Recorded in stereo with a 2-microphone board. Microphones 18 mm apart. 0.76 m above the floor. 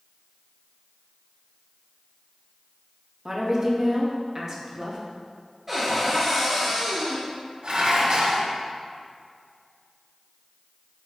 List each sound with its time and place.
3.2 s a woman speaking: 30° right (ahead or behind), 0.6 m
5.7 s a cupboard door: 20° right (ahead or behind), 1.3 m
7.6 s dishes clattering: 55° right (ahead or behind), 0.7 m